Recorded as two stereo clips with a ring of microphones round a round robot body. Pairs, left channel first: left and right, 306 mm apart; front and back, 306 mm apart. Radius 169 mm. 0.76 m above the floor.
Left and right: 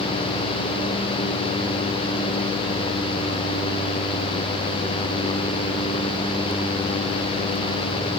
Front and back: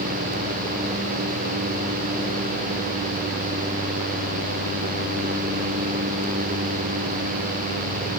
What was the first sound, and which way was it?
Only background noise.